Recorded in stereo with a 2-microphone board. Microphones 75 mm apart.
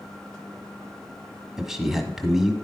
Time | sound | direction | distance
1.6 | a man speaking | 5° right (ahead or behind) | 1.1 m